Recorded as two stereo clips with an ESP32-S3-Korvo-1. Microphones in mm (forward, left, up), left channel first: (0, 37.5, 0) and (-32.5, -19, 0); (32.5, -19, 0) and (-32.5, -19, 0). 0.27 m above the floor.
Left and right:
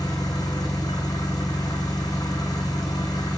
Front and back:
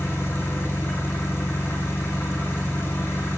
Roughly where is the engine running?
Ahead left.